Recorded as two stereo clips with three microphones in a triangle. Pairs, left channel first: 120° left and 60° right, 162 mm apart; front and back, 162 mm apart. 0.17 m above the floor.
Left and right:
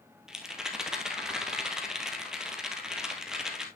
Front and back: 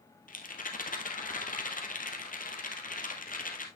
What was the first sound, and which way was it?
A rattle, 25° left.